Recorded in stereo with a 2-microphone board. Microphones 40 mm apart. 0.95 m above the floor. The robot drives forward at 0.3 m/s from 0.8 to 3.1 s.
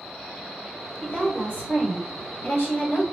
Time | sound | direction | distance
1.0 | a woman speaking | 35° left (ahead or behind) | 1.6 m